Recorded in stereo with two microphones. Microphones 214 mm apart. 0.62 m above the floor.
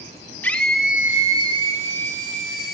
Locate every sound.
0.4 s a scream: 10° left (ahead or behind), 1.1 m; by 2.8 s 45° right (ahead or behind), 1.4 m